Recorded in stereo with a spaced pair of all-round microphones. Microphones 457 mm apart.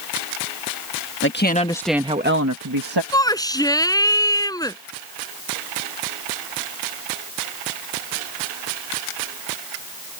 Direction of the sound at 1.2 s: 25° left (ahead or behind).